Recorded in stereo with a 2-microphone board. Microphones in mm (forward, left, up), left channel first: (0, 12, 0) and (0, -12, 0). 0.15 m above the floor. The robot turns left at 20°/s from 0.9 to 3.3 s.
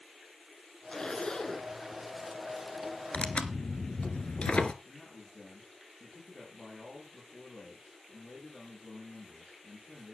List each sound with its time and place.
0.9 s a zipper: 40° left (ahead or behind), 1.3 m; by 1.7 s 30° left (ahead or behind), 1.3 m
3.1 s tearing paper: 60° left (ahead or behind), 1.1 m
4.8 s a man speaking: 60° left (ahead or behind), 6.5 m